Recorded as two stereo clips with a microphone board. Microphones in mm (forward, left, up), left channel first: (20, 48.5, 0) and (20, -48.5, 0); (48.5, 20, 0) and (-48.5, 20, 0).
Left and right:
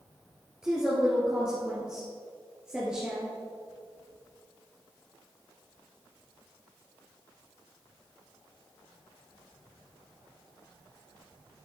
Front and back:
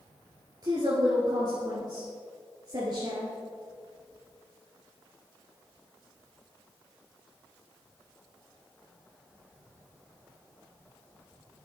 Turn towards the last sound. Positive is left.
turn(degrees=-170)